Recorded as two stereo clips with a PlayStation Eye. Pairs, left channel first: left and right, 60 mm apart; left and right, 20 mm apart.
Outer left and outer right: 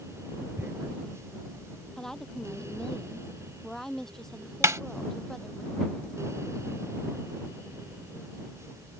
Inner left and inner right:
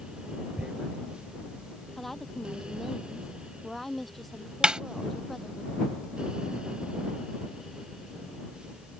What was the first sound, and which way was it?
Tearing paper, 40° right (ahead or behind).